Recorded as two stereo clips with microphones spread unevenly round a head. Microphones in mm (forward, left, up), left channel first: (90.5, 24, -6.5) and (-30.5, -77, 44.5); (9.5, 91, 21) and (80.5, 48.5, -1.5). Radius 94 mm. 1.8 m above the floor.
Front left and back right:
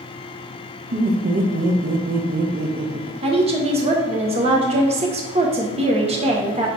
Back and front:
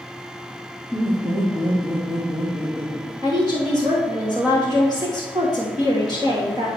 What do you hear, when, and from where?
0.9 s laughter: 105° right, 1.2 m
3.2 s a woman speaking: 105° right, 1.2 m